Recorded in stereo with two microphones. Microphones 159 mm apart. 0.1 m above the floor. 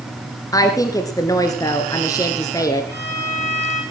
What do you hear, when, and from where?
0.5 s a woman speaking: 20° left (ahead or behind), 1.4 m
2.9 s a violin: 15° left (ahead or behind), 8.5 m